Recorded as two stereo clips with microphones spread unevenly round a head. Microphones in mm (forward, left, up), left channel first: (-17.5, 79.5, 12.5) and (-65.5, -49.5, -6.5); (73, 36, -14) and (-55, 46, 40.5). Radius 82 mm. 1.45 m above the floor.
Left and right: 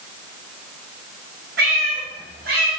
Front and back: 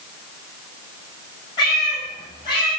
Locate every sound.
1.6 s a cat meowing: 75° right, 6 m